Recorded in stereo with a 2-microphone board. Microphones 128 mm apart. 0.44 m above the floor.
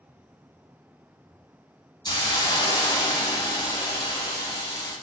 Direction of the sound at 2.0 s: 35° left (ahead or behind).